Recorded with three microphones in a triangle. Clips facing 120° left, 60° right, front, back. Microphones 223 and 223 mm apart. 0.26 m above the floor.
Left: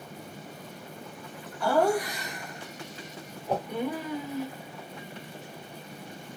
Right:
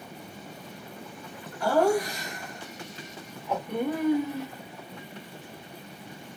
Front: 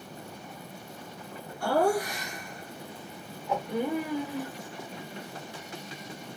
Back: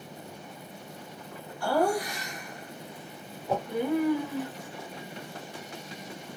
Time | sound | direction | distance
1.6 | laughter | straight ahead | 1.6 m
3.5 | a whoosh | 155° left | 0.5 m